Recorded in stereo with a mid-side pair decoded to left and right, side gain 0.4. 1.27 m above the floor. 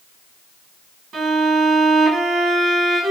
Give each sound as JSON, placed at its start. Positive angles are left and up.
{"t": 1.1, "sound": "a violin", "azimuth_deg": -70, "distance_m": 1.2}